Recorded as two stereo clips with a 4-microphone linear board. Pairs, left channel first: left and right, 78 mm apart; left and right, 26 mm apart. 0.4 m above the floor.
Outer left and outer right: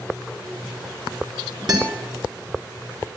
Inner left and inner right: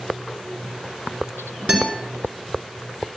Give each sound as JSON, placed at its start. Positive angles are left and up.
{"t": 1.7, "sound": "a guitar", "side_deg": -60, "distance_m": 3.0}